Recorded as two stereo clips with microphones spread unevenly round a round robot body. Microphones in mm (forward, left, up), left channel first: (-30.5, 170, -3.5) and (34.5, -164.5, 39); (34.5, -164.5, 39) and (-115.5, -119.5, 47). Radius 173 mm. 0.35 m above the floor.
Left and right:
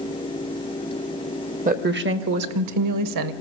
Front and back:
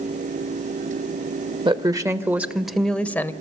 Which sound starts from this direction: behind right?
A woman speaking, at 1.6 s.